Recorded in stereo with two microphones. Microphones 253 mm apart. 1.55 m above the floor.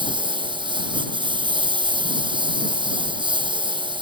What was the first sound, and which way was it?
A lawn mower, 20° right (ahead or behind).